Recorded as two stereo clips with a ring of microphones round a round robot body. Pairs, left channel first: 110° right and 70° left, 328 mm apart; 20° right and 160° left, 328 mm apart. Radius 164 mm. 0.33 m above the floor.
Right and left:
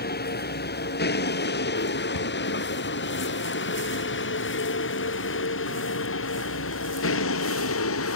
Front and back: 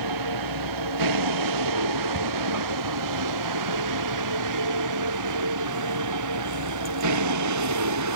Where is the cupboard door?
145° right.